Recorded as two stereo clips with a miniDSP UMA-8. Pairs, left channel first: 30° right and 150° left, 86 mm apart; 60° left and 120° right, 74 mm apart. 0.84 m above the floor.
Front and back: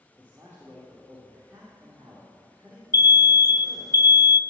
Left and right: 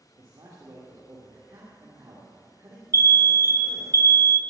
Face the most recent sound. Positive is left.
turn(degrees=-75)